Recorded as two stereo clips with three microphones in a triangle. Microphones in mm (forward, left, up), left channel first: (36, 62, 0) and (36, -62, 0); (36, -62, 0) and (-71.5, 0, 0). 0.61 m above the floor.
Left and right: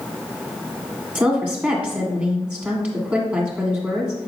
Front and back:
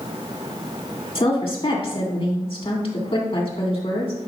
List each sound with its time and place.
1.1 s a woman speaking: 15° right, 2 m